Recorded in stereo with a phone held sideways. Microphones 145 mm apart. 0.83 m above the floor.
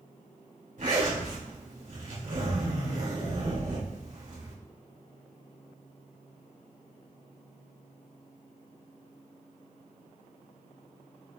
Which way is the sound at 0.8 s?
65° right (ahead or behind).